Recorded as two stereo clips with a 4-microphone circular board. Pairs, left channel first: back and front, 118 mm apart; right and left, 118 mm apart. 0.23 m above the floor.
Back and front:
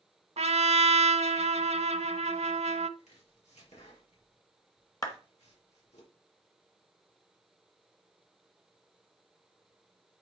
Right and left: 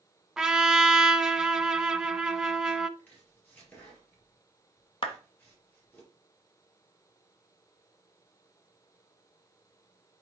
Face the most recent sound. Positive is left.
turn(degrees=-130)